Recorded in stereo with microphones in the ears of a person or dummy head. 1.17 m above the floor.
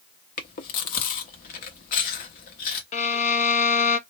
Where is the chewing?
50° left (ahead or behind), 0.9 m.